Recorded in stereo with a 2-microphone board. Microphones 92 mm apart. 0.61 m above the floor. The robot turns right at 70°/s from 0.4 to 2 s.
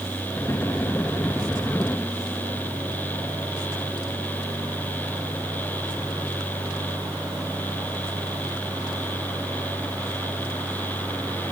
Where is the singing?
No singing in this recording.